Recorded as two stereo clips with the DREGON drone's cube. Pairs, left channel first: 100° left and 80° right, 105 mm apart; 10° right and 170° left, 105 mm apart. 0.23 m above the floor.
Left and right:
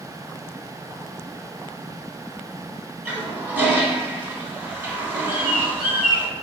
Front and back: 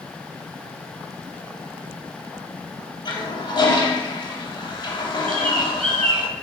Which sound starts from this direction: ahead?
A toilet flushing, at 3.0 s.